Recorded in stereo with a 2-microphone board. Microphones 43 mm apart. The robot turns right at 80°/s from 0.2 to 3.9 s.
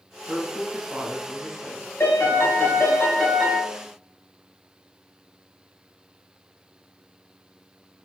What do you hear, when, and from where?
0.3 s a woman speaking: 90° right, 1.6 m; by 3.0 s 130° left, 1.6 m
2.0 s a piano: 70° left, 1.7 m; by 3.6 s 165° right, 1.7 m